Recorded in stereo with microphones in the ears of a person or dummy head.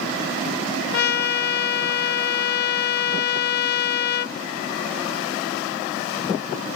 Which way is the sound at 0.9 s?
60° left (ahead or behind).